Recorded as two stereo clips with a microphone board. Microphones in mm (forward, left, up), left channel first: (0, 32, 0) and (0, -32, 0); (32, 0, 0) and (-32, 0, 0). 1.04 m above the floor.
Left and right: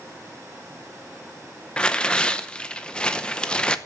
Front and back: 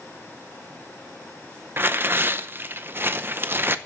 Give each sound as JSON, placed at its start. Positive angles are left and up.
{"t": 1.8, "sound": "tearing paper", "azimuth_deg": 155, "distance_m": 0.7}